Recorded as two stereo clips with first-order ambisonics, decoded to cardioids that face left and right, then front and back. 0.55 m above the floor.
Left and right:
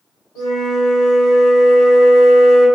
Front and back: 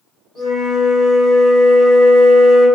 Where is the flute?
120° left, 1.9 m.